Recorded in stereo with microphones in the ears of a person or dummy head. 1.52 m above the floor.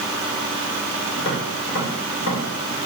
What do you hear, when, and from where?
1.1 s tapping: 70° left (ahead or behind), 3.5 m